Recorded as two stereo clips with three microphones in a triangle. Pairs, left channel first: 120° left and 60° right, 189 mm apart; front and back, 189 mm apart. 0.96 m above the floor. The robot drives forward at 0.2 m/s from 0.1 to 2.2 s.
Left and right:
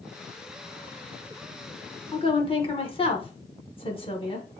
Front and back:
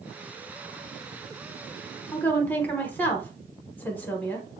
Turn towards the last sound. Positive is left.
turn(degrees=75)